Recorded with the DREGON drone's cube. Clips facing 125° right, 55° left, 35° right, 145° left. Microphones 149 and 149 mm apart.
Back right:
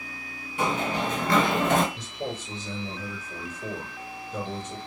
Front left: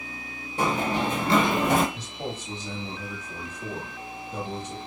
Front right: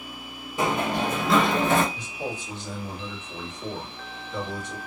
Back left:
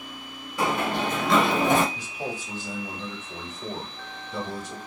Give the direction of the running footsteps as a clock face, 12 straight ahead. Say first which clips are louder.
Front left 2 dB, front right 1 dB; 11 o'clock.